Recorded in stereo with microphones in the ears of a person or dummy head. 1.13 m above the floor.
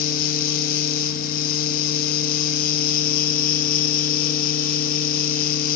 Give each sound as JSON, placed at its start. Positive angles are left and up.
{"t": 0.0, "sound": "a fan", "side_deg": 55, "distance_m": 1.2}